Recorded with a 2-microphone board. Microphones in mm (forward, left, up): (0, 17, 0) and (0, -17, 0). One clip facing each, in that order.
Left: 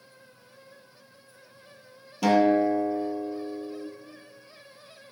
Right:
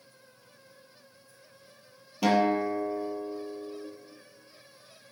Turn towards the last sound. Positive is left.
turn(degrees=-10)  # may be behind; listen again after turning